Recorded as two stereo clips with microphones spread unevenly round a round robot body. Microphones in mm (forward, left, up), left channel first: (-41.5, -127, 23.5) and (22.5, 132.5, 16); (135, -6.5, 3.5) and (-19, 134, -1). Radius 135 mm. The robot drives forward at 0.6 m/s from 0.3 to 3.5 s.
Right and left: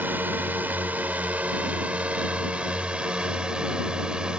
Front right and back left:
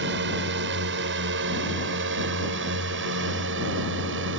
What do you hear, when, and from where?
0.0 s a drone: 160° left